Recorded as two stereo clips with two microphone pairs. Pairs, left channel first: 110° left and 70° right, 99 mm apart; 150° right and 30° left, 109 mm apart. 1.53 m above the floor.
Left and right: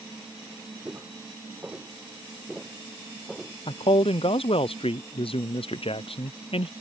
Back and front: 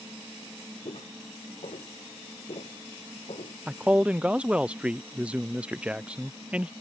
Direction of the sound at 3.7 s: 105° left.